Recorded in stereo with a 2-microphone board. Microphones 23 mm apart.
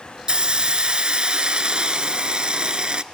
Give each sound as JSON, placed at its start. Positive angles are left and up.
{"t": 0.3, "sound": "a hiss", "side_deg": -40, "distance_m": 0.5}